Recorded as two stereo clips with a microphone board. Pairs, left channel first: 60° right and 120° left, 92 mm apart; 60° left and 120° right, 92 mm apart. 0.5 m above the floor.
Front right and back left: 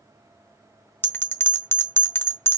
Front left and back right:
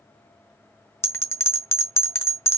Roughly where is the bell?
Ahead.